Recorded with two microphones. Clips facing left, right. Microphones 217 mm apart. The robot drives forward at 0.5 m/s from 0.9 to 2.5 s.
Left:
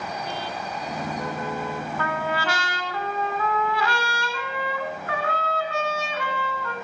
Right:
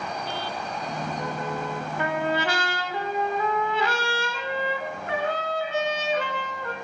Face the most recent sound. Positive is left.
turn(degrees=-20)  # may be behind; listen again after turning